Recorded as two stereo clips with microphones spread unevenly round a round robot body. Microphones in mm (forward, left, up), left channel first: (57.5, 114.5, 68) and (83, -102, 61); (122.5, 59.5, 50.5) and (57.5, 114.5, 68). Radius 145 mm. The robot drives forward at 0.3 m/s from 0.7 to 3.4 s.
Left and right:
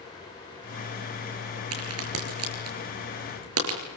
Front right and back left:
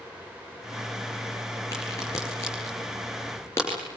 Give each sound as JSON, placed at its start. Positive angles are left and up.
{"t": 1.7, "sound": "a crack", "azimuth_deg": -110, "distance_m": 6.5}